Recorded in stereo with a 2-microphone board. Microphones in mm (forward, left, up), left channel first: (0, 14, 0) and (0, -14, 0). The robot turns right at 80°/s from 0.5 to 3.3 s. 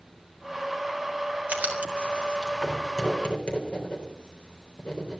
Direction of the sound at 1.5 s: 70° right (ahead or behind).